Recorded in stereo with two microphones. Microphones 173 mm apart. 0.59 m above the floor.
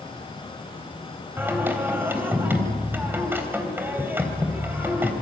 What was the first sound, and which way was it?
Singing, 15° right (ahead or behind).